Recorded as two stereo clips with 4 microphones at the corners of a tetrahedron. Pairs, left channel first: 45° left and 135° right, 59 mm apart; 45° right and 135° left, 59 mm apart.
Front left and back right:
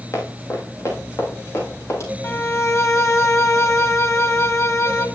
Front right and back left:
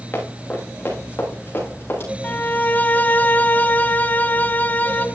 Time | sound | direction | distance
0.1 | running footsteps | 15° left | 5.5 m
2.2 | a violin | 15° left | 1.2 m